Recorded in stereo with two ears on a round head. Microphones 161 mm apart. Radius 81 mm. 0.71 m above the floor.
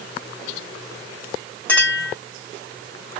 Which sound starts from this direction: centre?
A clink, at 1.7 s.